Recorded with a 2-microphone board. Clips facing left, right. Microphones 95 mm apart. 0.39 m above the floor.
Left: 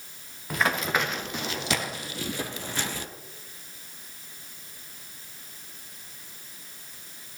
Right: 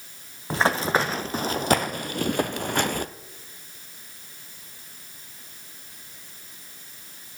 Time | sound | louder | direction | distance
0.5 | running footsteps | right 4 dB | 30° right (ahead or behind) | 1.3 m